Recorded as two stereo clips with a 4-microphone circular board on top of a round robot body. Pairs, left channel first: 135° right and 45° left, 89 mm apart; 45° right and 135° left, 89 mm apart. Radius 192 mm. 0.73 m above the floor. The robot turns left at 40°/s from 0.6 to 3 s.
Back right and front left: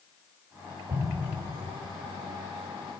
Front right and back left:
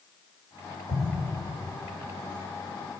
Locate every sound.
0.9 s an explosion: 20° right, 1.4 m; by 1.4 s 40° right, 1.4 m